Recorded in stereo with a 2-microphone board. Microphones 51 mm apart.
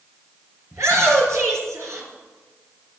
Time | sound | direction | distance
0.7 | a shout | 80° right | 4.5 m